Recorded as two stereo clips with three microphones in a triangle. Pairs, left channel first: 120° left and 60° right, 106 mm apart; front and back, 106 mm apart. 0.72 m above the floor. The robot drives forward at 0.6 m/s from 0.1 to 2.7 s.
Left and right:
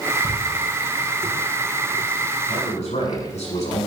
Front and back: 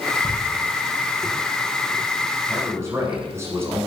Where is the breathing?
No breathing in this recording.